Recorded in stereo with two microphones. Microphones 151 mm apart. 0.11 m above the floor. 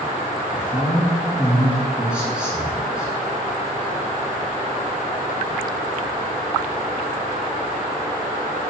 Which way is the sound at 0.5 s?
5° right (ahead or behind).